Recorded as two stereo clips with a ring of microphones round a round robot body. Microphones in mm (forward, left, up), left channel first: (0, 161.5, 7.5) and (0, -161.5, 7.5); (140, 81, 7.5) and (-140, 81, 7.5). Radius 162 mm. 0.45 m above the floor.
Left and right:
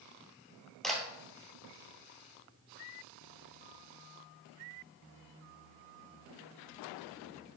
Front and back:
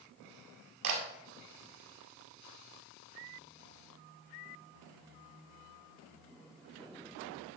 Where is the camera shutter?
Straight behind, 1.9 m.